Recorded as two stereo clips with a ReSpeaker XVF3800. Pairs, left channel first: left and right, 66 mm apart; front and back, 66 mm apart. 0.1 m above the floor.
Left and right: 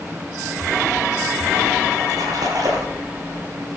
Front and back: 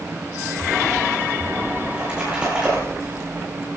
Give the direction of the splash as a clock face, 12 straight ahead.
3 o'clock.